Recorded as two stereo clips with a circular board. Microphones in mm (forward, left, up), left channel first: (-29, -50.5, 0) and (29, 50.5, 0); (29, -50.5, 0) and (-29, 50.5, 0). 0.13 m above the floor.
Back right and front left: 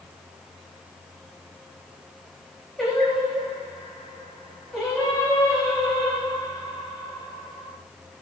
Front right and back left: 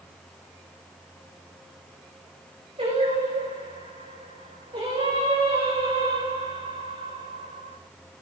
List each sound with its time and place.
2.8 s singing: 155° left, 9 m